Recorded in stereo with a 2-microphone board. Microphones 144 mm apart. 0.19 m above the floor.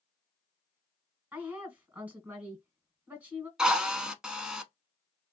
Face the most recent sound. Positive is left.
turn(degrees=-5)  # may be behind; listen again after turning